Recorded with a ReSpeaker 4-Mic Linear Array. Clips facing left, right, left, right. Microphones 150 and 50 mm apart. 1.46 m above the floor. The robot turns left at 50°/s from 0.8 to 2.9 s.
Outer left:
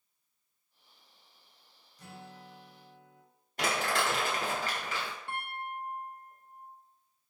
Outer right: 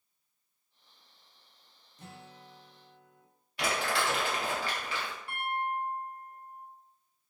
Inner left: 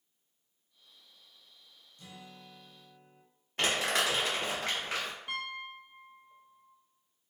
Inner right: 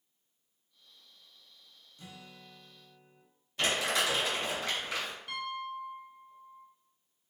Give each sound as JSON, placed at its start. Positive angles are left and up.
{"t": 2.0, "sound": "a guitar", "azimuth_deg": -150, "distance_m": 0.6}
{"t": 3.6, "sound": "crumpling", "side_deg": 45, "distance_m": 1.2}
{"t": 5.3, "sound": "a piano", "side_deg": 25, "distance_m": 0.6}